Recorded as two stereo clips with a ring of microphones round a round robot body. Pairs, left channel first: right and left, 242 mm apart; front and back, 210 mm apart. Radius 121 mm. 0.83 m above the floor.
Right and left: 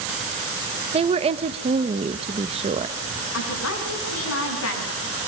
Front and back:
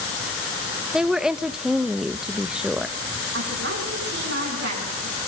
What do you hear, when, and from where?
0.9 s a woman speaking: 95° left, 0.8 m
3.3 s a woman speaking: 130° right, 6.5 m